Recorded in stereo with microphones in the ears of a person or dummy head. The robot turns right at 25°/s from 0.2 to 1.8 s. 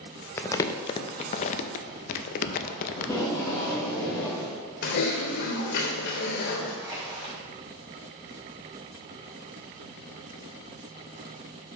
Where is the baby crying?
I don't hear a baby crying.